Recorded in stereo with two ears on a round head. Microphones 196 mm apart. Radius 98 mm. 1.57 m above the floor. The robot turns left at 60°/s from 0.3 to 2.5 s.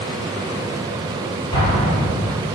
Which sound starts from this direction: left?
An explosion, at 1.5 s.